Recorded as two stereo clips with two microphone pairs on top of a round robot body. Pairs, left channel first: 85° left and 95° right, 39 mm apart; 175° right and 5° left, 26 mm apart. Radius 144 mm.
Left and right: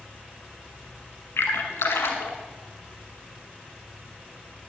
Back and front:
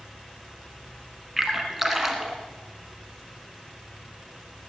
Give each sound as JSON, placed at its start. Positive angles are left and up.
{"t": 1.4, "sound": "a splash", "azimuth_deg": 80, "distance_m": 1.0}